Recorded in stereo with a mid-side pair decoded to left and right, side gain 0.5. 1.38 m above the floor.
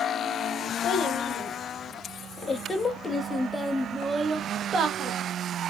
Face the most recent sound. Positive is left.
turn(degrees=-55)